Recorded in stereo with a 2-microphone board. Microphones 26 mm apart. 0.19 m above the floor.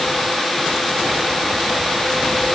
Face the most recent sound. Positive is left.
No sound to turn to.